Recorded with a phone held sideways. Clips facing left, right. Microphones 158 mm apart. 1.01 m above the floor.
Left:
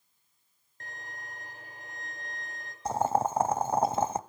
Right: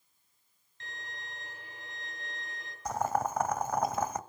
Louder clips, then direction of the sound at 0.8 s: Left 1 dB; 50° left (ahead or behind).